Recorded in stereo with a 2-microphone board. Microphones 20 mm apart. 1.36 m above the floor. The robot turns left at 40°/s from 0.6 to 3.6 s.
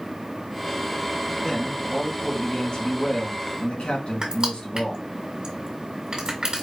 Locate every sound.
1.4 s a man speaking: 175° right, 2.5 m; by 5.0 s 100° left, 2.5 m
4.2 s crushing: 40° right (ahead or behind), 1.8 m